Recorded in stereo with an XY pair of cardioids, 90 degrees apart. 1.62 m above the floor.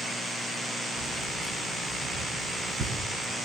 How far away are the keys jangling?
About 9.5 m.